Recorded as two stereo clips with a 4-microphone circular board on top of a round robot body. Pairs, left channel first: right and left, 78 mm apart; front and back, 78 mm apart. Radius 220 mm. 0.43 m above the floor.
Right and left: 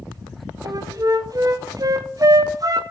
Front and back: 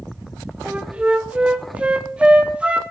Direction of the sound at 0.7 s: 110° left.